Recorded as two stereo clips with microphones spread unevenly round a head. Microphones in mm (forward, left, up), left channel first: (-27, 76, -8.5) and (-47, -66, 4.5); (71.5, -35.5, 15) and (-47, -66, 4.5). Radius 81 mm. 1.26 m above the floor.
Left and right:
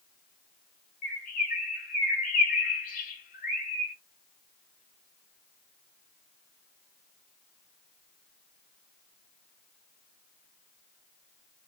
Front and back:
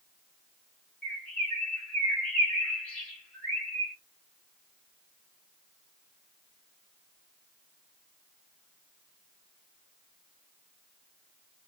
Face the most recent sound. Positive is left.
turn(degrees=95)